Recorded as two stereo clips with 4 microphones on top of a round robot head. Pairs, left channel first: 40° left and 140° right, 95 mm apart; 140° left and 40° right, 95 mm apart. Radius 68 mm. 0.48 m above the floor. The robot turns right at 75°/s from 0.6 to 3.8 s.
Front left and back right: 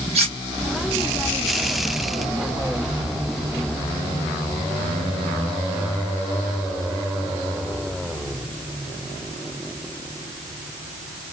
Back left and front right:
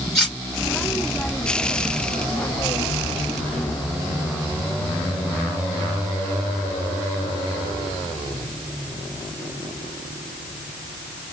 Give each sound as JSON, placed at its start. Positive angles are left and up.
{"t": 0.1, "sound": "cutlery clinking", "azimuth_deg": -135, "distance_m": 1.6}